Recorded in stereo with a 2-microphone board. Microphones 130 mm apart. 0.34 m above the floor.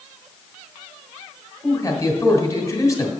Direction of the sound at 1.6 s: 25° left (ahead or behind).